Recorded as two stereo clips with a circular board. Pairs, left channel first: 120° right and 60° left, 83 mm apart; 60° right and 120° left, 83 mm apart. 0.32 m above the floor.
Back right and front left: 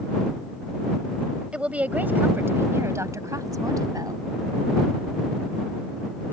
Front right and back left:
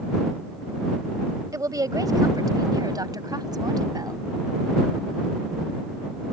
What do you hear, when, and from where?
1.5 s a woman speaking: 130° left; by 4.2 s 90° left